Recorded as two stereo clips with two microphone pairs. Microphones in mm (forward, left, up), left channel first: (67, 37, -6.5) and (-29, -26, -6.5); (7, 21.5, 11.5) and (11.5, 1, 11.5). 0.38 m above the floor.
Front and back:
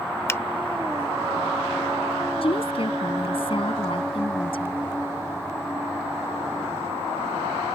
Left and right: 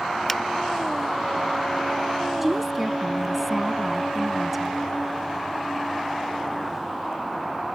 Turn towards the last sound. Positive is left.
turn(degrees=0)